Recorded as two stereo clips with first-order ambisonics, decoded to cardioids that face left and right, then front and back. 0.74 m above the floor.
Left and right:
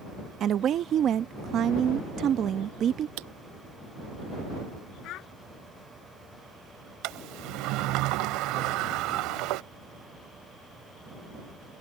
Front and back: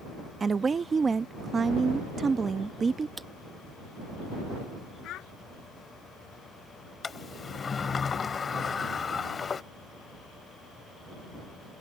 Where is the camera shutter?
95° right.